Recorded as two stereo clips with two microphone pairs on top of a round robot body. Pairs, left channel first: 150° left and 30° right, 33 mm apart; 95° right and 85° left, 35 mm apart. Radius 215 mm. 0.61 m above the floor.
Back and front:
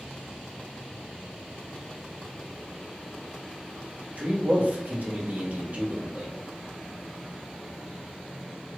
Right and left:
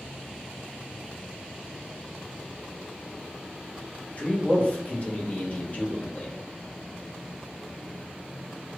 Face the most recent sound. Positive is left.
turn(degrees=-55)